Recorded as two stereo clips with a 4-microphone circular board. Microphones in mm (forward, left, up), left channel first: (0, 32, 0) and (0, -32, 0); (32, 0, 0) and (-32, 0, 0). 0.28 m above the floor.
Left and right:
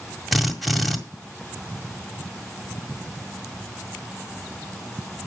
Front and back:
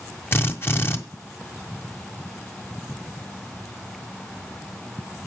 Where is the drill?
Straight ahead, 1.7 m.